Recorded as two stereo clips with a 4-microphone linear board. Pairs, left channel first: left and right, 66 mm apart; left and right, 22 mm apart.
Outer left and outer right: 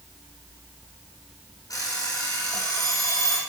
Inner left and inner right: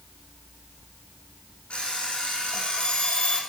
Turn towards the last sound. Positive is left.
turn(degrees=70)  # may be behind; listen again after turning